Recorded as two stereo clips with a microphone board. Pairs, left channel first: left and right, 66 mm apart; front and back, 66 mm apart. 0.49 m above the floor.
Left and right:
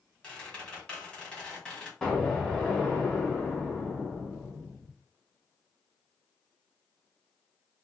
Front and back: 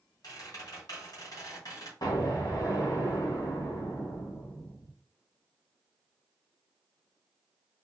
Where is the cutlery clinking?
I don't hear cutlery clinking.